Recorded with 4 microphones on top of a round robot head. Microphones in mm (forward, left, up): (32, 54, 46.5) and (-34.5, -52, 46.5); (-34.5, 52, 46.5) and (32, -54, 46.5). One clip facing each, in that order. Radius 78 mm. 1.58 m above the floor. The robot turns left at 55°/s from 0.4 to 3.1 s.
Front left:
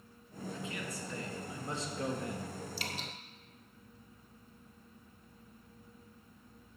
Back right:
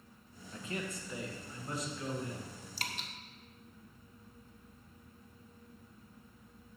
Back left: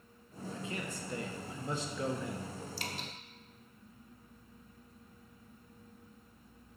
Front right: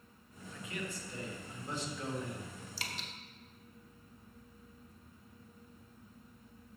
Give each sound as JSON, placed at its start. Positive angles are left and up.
{"t": 0.5, "sound": "a man speaking", "azimuth_deg": -165, "distance_m": 1.5}
{"t": 2.8, "sound": "dripping", "azimuth_deg": -70, "distance_m": 0.9}